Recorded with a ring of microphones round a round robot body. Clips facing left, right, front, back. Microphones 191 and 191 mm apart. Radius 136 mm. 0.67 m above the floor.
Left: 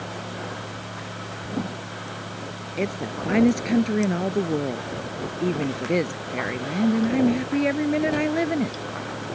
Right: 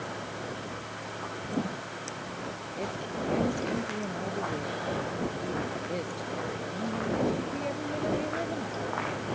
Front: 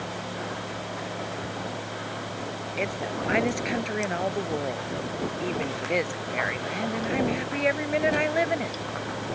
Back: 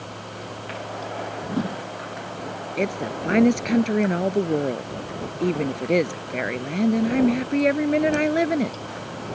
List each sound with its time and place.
1.4 s a whoosh: 175° left
2.8 s a woman speaking: 140° left